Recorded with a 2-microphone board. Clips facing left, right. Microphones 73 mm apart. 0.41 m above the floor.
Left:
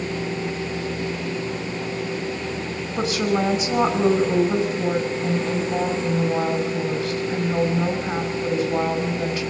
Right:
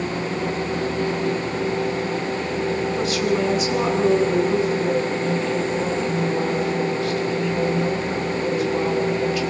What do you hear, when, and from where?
3.0 s a woman speaking: 25° left (ahead or behind), 4.5 m